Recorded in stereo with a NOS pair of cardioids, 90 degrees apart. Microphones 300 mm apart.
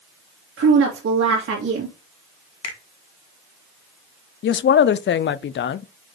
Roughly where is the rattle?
I don't hear a rattle.